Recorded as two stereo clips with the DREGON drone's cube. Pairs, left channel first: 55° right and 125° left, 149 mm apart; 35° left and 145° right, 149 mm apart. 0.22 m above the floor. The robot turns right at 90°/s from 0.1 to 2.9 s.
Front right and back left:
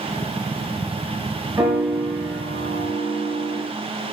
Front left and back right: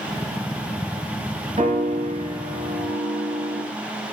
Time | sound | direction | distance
1.6 | a piano | straight behind | 0.8 m